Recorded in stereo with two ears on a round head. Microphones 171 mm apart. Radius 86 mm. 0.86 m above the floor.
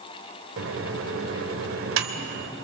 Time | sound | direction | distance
0.6 | a microwave | 80° right | 2.5 m